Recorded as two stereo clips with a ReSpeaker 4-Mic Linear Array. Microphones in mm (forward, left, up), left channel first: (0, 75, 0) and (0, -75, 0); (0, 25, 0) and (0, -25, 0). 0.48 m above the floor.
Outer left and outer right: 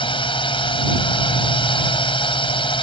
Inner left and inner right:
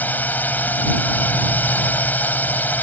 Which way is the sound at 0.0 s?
35° left (ahead or behind).